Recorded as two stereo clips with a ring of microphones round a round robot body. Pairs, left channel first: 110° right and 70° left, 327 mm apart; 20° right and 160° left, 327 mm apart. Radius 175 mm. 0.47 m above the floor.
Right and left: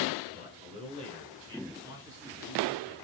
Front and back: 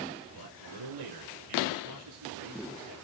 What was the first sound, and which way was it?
A man speaking, 140° left.